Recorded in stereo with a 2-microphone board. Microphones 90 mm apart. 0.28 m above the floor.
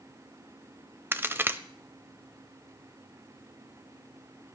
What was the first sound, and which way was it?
A crack, 25° right (ahead or behind).